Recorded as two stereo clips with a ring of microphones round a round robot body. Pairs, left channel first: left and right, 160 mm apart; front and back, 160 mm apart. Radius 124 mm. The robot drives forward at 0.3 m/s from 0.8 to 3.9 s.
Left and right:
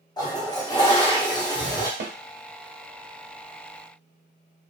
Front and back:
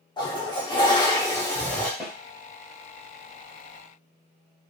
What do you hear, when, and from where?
0.2 s a toilet flushing: 40° left, 1.0 m; by 1.9 s 75° left, 0.9 m
2.0 s a snare drum: 80° right, 0.7 m; by 2.1 s 85° right, 0.7 m